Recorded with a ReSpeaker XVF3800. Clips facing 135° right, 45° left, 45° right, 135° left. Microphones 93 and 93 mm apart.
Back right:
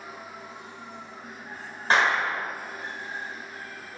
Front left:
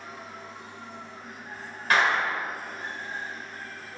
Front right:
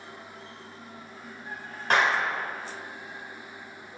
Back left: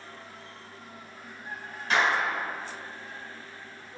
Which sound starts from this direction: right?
A clap, at 1.9 s.